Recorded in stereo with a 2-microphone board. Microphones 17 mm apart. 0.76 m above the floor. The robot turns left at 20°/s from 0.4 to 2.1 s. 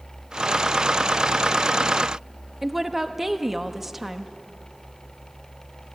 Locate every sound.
2.6 s a woman speaking: 10° right (ahead or behind), 0.9 m